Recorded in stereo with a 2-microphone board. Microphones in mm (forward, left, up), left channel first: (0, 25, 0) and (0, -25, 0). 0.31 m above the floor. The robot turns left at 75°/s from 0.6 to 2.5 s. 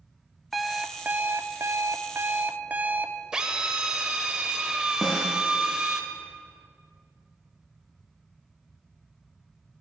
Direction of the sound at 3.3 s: 15° right (ahead or behind).